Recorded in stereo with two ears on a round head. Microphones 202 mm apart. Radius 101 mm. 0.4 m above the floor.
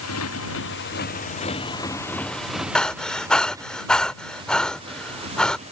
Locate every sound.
0.0 s a motorcycle: 75° left (ahead or behind); by 5.7 s 30° right (ahead or behind)
2.8 s breathing: 5° left (ahead or behind)